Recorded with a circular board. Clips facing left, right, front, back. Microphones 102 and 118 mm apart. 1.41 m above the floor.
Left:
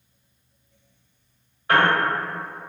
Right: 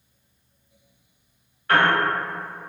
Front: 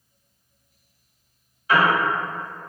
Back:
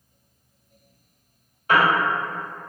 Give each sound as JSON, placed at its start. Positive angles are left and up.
{"t": 1.7, "sound": "a piano", "azimuth_deg": 155, "distance_m": 1.7}